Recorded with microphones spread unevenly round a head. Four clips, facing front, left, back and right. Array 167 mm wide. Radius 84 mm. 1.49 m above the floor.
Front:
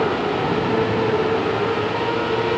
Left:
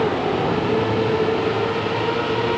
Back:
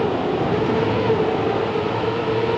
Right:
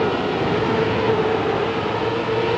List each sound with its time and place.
Only background noise.